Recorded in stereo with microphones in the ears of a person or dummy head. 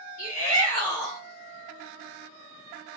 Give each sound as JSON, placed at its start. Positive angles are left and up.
{"t": 0.2, "sound": "a shout", "side_deg": 55, "distance_m": 1.3}